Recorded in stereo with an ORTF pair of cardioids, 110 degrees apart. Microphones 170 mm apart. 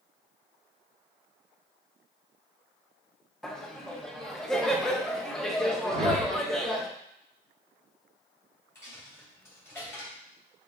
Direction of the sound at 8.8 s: 15° left.